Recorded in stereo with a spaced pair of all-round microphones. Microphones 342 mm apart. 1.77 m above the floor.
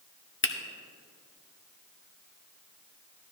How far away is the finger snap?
About 0.7 m.